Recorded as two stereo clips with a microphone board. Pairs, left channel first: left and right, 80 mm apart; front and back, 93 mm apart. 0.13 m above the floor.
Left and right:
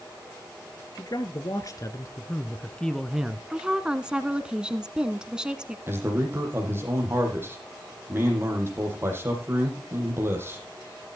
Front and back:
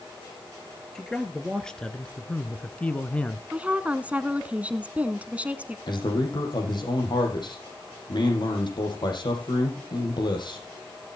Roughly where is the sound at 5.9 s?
Ahead right.